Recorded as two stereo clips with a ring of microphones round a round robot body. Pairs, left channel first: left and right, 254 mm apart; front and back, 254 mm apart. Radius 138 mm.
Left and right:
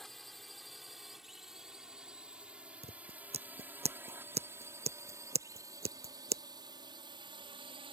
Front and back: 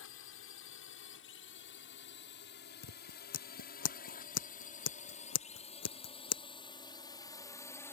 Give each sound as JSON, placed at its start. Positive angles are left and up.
{"t": 0.0, "sound": "a drone", "azimuth_deg": 0}
{"t": 2.8, "sound": "scissors", "azimuth_deg": -25}